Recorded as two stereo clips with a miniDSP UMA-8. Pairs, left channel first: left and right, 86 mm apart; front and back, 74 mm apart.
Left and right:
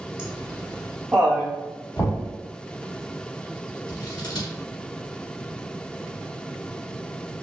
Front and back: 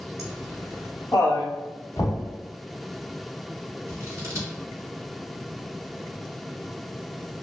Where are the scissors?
125° left, 1.3 m.